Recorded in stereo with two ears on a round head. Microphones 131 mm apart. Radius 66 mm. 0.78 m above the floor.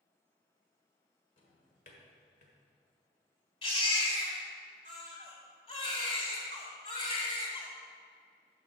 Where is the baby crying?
40° left (ahead or behind), 2.0 m.